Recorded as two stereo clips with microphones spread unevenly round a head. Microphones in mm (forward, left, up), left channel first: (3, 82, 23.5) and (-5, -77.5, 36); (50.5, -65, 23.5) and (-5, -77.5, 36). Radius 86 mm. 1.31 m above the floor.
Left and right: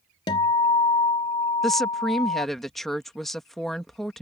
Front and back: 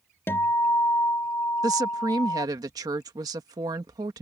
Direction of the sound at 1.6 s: 175° left.